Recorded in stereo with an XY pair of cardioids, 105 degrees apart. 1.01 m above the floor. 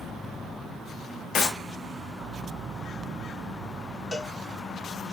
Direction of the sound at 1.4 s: 65° left.